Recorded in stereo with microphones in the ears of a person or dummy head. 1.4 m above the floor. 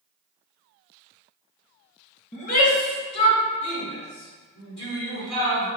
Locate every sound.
2.3 s a shout: 35° left (ahead or behind), 0.8 m; by 5.7 s 90° left, 3 m